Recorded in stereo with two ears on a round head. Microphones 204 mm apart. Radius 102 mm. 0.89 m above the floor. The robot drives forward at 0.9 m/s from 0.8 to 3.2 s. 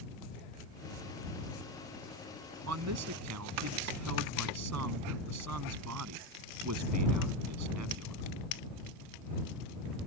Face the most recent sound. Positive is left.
turn(degrees=-85)